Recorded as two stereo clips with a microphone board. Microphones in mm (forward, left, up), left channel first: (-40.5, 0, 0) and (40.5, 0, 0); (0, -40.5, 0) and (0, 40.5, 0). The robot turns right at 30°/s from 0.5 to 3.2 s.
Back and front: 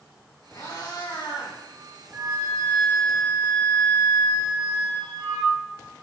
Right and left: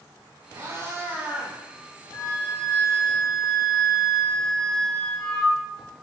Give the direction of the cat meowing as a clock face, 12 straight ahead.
7 o'clock.